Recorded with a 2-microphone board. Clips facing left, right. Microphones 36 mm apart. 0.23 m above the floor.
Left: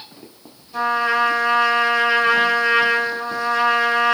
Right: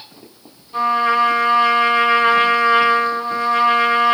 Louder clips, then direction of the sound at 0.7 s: Right 3 dB; 40° right (ahead or behind).